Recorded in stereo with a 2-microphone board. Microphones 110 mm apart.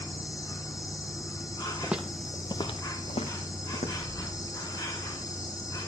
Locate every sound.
0.0 s an insect: 35° left (ahead or behind), 1.8 m
1.8 s footsteps: 15° right (ahead or behind), 1.0 m; by 4.1 s 75° left (ahead or behind), 2.5 m